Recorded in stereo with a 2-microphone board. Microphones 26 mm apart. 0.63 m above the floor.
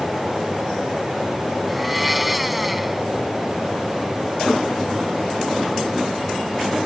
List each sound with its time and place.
1.7 s a blender: 5° right (ahead or behind)